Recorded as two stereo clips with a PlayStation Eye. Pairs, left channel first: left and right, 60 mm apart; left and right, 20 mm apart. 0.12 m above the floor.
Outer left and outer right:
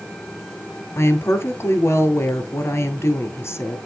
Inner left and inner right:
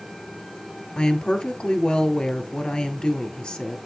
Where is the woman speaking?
45° left (ahead or behind), 2.0 m.